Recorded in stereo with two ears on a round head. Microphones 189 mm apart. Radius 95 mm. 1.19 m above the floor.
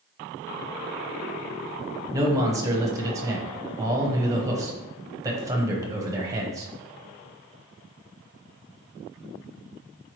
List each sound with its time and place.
2.1 s a man speaking: 15° right (ahead or behind), 0.7 m